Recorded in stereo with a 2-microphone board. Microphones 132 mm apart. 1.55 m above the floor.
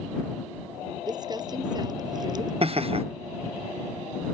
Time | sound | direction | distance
1.1 | crumpling | 30° right (ahead or behind) | ?
2.6 | laughter | 45° right (ahead or behind) | ?